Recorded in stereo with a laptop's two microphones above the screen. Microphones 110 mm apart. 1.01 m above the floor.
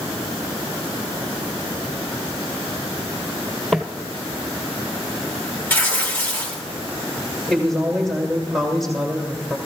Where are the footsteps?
Centre (ahead or behind), 1.5 m.